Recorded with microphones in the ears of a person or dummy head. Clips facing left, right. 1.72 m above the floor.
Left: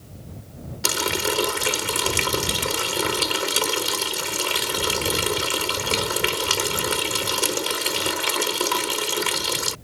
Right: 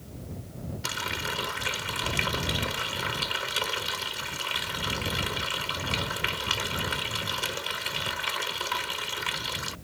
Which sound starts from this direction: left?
A running tap, at 0.8 s.